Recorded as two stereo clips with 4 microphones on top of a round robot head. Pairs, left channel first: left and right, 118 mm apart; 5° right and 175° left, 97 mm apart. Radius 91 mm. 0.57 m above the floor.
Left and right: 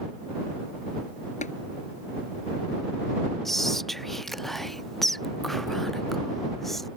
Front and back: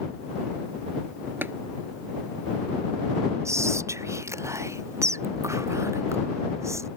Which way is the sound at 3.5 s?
175° left.